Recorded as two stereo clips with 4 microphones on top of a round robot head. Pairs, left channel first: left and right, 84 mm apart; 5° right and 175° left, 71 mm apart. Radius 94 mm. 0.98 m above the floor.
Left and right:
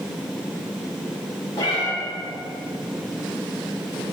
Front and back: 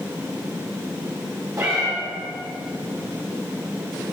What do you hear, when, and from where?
1.6 s a cat meowing: 130° left, 1.7 m